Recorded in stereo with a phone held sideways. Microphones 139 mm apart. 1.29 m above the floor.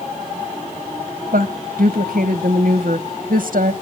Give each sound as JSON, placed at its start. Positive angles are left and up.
{"t": 1.3, "sound": "a woman speaking", "side_deg": -85, "distance_m": 0.9}